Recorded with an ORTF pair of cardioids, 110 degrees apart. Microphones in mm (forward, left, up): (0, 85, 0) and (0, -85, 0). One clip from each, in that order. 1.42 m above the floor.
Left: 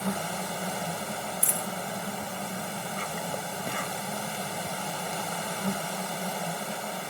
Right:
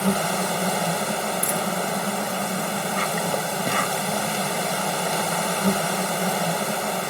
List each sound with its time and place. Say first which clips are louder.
0.0 s an insect: right 9 dB; 55° right
1.4 s a dropped coin: right 7 dB; 10° left